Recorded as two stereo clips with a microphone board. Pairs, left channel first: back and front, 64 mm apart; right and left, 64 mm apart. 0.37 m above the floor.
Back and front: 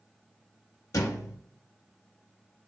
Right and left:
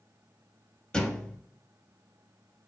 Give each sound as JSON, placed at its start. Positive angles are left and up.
{"t": 0.9, "sound": "a thud", "azimuth_deg": -165, "distance_m": 0.5}